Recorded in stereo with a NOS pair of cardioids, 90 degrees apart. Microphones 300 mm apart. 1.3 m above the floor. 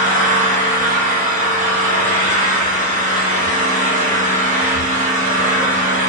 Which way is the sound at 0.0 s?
25° right.